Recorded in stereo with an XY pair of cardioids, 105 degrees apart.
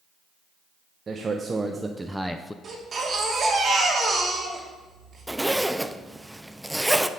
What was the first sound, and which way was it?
A man speaking, 35° right.